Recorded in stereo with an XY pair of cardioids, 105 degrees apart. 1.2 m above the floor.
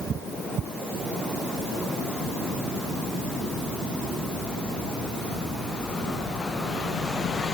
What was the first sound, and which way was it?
Only background noise.